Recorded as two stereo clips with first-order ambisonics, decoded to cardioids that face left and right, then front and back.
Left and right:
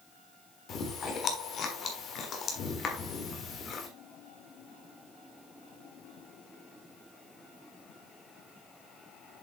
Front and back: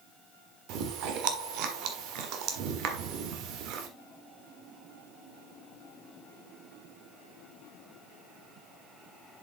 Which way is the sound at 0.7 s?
150° left.